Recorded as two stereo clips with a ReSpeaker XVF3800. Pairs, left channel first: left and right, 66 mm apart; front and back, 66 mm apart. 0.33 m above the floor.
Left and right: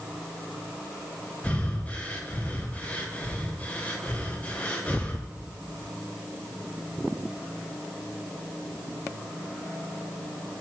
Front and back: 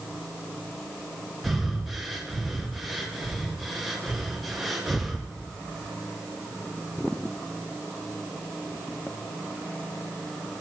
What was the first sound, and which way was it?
Breathing, 100° left.